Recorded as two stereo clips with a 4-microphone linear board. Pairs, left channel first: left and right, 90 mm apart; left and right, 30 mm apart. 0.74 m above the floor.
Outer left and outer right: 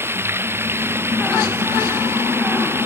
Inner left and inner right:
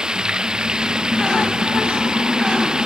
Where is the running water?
25° right (ahead or behind).